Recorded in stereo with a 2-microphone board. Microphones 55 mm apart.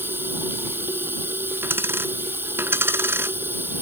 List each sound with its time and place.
0.0 s running water: 40° right (ahead or behind)
1.6 s a dropped coin: 45° right (ahead or behind)